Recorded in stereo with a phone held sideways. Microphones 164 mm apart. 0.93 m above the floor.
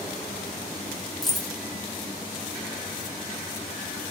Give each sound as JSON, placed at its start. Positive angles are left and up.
{"t": 1.2, "sound": "keys jangling", "side_deg": 0, "distance_m": 1.1}